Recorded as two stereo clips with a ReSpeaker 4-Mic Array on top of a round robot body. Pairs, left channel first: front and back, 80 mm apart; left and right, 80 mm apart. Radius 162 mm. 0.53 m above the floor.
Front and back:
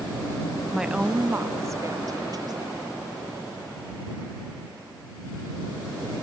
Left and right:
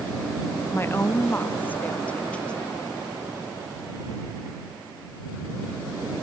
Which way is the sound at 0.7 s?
100° left.